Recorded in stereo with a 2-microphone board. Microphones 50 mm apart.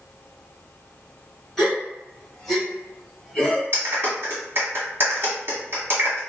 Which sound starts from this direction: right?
A clap, at 3.7 s.